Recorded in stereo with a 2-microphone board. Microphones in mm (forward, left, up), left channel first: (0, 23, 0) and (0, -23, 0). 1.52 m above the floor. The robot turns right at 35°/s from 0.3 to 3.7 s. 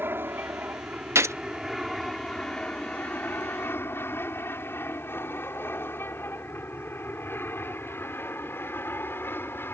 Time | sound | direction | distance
0.0 | an aircraft | 50° right (ahead or behind) | ?
1.1 | a gunshot | 80° right | ?